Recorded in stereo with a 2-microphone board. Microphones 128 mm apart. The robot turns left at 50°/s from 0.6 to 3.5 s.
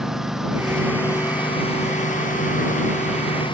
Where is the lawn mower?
175° right; by 3.6 s 40° left.